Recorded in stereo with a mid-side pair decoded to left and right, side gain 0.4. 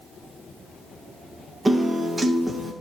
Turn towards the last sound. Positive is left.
turn(degrees=-20)